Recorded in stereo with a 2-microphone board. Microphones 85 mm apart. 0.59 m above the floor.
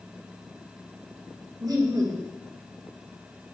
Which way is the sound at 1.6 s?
50° right (ahead or behind).